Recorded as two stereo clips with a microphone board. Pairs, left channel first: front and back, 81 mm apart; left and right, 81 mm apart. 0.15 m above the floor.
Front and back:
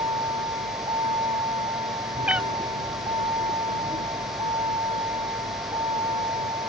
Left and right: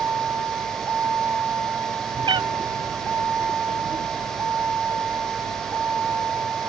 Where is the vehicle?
165° right.